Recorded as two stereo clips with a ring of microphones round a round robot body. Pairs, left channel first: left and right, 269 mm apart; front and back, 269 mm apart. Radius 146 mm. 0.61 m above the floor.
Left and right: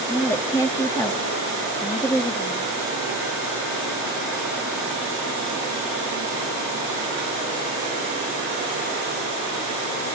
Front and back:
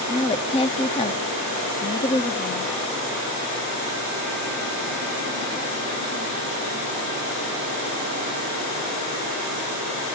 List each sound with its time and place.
0.1 s a woman speaking: 25° left, 0.7 m